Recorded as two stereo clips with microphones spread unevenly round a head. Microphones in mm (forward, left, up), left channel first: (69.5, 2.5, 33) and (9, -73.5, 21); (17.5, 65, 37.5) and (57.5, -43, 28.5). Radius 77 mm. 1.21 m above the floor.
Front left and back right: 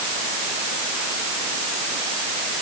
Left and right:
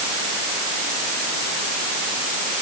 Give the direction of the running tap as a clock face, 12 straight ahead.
I don't hear a running tap.